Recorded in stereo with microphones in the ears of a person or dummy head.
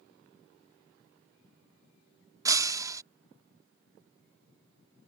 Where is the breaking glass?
20° right (ahead or behind).